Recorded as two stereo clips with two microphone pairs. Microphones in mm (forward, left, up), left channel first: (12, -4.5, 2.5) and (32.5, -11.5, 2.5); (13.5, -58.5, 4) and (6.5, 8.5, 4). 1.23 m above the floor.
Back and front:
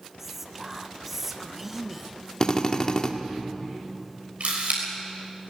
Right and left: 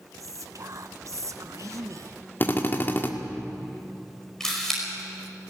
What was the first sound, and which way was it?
Whispering, 60° left.